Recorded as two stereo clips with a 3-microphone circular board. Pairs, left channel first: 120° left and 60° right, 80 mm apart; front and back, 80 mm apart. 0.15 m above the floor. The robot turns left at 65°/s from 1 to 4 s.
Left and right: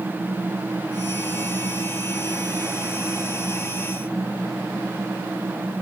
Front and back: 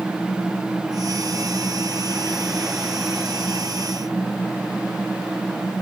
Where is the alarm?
No alarm in this recording.